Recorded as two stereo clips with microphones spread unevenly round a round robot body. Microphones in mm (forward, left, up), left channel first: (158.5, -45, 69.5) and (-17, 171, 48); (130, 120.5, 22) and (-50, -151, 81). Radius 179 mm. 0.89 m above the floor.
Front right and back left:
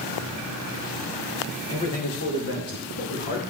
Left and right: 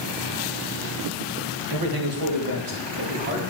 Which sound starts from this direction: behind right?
A man speaking, at 1.7 s.